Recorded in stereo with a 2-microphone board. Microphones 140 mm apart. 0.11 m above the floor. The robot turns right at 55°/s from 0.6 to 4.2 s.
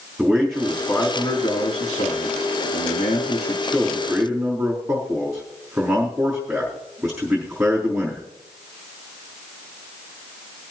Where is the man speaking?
Straight ahead, 5 m; by 8.2 s 160° right, 5 m.